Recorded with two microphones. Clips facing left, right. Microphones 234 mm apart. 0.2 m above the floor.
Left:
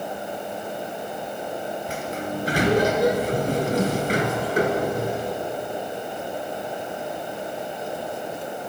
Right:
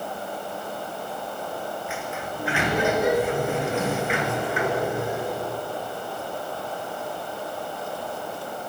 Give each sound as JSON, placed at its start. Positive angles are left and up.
{"t": 1.9, "sound": "a sliding door", "side_deg": 40, "distance_m": 2.5}